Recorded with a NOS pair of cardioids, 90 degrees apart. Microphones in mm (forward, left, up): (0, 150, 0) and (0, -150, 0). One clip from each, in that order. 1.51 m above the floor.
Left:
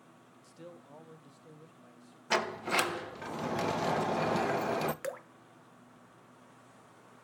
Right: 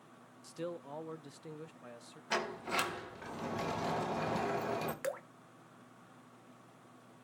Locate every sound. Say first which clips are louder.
0.4 s a man speaking: right 9 dB; 45° right, 0.8 m; by 2.2 s 65° right, 1.7 m
2.3 s a sliding door: left 5 dB; 35° left, 1.7 m
5.0 s dripping: even; straight ahead, 1.5 m